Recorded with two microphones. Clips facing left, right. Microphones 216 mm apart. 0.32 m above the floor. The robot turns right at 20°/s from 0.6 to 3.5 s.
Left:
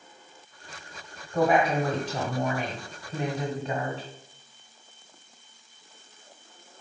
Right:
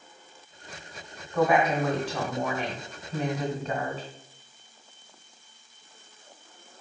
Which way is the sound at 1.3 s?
130° left.